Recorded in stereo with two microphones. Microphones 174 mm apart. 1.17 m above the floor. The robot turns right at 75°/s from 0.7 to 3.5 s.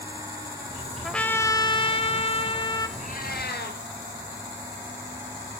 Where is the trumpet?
Straight ahead, 1.0 m; by 2.9 s 140° left, 1.0 m.